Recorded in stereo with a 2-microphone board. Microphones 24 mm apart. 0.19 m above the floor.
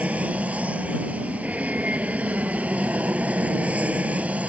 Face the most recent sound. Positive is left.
turn(degrees=-65)  # may be behind; listen again after turning